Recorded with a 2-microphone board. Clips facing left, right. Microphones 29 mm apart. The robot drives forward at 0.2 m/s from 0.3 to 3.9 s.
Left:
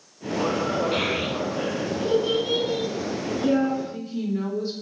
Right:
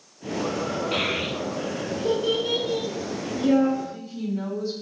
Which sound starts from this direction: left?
A woman speaking, at 3.8 s.